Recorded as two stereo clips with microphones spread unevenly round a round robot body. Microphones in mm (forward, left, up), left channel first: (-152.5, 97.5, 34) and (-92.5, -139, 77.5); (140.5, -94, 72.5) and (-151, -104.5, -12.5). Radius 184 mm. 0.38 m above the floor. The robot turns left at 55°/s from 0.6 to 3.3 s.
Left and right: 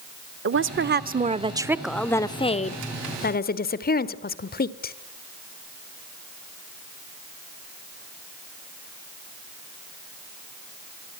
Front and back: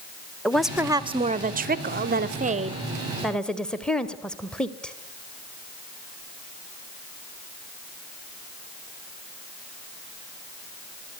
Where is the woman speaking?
105° right, 1.1 m; by 4.9 s 105° left, 1.1 m.